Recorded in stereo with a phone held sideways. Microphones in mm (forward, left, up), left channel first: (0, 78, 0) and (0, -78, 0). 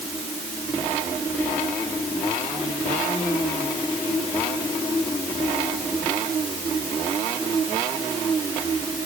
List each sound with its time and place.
Only background noise.